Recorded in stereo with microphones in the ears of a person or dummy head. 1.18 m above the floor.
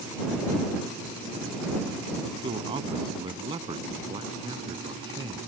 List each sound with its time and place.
2.4 s a man speaking: 30° right (ahead or behind); by 5.4 s 25° right (ahead or behind)